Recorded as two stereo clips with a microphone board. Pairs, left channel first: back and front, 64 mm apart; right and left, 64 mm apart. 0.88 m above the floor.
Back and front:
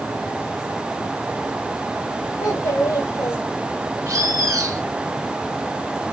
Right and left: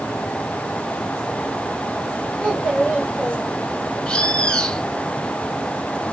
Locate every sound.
2.4 s a child speaking: 160° right, 2.5 m
4.1 s a bird: 20° right, 1.2 m